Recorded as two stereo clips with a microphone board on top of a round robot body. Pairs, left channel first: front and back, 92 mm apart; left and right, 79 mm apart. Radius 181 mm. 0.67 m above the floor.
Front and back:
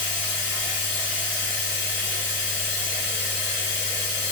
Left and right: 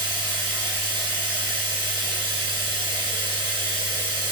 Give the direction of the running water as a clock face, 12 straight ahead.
2 o'clock.